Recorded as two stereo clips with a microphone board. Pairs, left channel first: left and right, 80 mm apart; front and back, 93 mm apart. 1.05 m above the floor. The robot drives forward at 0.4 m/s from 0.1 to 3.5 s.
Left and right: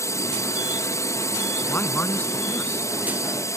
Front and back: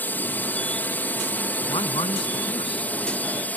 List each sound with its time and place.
0.0 s a drone: 60° left; by 3.6 s 65° left
1.6 s a man speaking: 20° left